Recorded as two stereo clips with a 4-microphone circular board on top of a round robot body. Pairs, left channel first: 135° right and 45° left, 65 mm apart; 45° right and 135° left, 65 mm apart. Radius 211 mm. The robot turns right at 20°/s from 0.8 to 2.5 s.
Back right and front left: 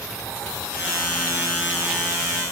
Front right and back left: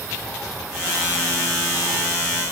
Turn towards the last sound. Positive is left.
No sound to turn to.